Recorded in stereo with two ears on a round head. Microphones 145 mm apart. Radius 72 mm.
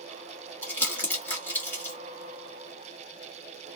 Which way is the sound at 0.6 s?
10° left (ahead or behind).